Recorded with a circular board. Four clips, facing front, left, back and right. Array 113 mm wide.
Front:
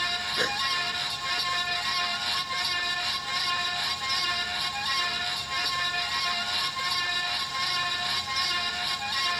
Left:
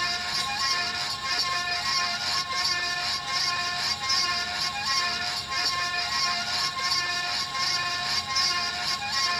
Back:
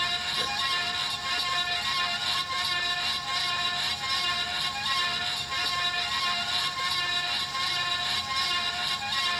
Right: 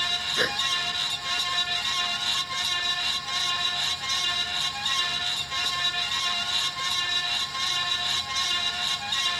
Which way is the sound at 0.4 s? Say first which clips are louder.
Right 7 dB, front 4 dB; 60° right.